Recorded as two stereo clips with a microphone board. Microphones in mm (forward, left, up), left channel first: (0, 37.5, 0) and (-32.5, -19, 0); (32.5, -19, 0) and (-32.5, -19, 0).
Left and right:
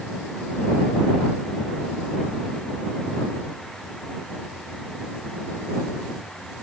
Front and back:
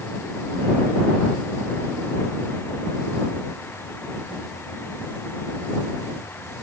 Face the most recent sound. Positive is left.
No sound to turn to.